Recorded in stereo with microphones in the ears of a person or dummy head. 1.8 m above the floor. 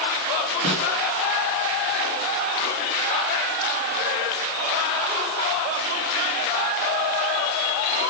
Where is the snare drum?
85° right, 3.5 m.